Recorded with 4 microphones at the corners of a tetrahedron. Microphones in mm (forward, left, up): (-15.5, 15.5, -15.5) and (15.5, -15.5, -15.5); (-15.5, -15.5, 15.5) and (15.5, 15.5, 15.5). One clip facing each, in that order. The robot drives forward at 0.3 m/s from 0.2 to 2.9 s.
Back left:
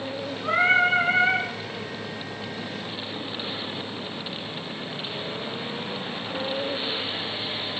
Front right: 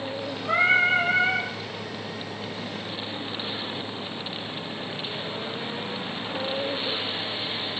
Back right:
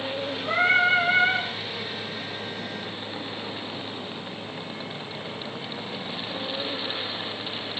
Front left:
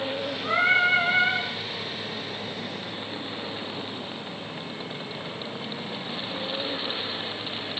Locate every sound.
0.4 s singing: 115° left, 2.0 m; by 1.5 s 125° left, 2 m